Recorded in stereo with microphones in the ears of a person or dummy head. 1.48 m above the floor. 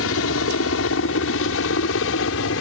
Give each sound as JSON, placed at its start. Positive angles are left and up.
{"t": 0.0, "sound": "a helicopter", "side_deg": 75}